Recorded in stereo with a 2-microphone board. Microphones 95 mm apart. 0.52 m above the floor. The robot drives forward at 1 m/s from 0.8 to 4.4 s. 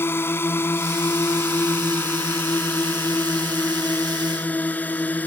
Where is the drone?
25° left (ahead or behind); by 5.3 s 15° left (ahead or behind).